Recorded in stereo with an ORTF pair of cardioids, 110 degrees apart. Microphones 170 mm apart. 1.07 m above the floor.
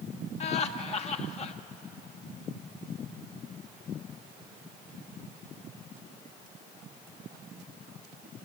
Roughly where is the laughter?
Ahead left.